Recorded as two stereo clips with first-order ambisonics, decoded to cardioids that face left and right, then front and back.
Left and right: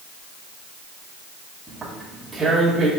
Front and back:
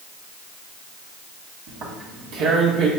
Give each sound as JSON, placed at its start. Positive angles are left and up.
{"t": 1.7, "sound": "tearing paper", "azimuth_deg": -175, "distance_m": 1.2}